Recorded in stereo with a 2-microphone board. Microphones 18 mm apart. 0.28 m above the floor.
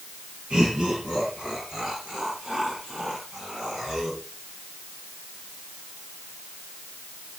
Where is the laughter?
60° right (ahead or behind), 8 m; by 4.2 s 65° right (ahead or behind), 11 m.